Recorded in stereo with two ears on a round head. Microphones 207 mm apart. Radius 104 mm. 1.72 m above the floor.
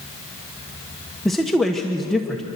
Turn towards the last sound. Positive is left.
turn(degrees=0)  # may be behind; listen again after turning